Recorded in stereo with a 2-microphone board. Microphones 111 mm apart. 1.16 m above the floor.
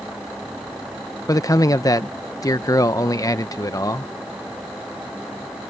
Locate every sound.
1.3 s a man speaking: 30° left (ahead or behind)